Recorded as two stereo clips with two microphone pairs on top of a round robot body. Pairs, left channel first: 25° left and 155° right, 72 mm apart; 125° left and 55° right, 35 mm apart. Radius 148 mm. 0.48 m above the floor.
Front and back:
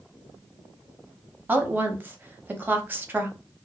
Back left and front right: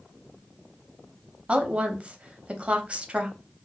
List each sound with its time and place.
1.5 s a woman speaking: 85° right, 1.0 m